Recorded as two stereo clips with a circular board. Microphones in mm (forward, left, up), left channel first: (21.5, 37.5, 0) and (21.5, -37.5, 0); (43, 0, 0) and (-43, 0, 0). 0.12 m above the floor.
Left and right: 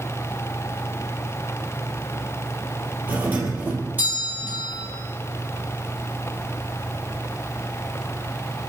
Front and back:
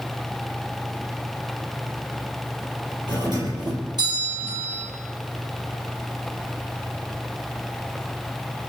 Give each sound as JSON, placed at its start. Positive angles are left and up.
{"t": 3.1, "sound": "a doorbell", "azimuth_deg": -155, "distance_m": 4.0}